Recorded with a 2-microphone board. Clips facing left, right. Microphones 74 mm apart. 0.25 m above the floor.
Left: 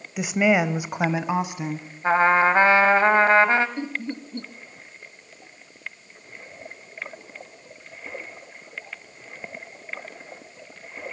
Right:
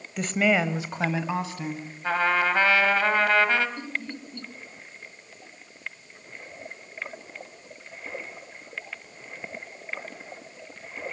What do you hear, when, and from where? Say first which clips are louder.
0.2 s a woman speaking: left 3 dB; 10° left (ahead or behind), 0.9 m; by 1.9 s 20° left (ahead or behind), 1.9 m
2.0 s a trumpet: left 6 dB; 30° left (ahead or behind), 1.4 m
3.8 s laughter: left 4 dB; 30° left (ahead or behind), 1.2 m